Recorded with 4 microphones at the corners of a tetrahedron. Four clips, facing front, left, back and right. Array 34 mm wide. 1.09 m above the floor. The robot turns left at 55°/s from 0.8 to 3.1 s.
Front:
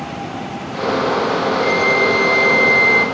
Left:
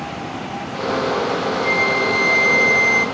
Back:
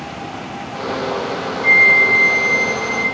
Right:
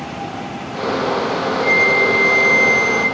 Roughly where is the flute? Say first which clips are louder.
Right 5 dB, back 7 dB; left.